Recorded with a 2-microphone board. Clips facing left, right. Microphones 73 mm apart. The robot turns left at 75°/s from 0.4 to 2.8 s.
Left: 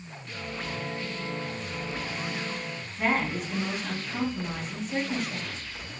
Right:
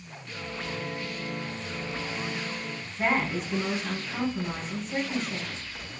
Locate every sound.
3.0 s a woman speaking: centre (ahead or behind), 1.5 m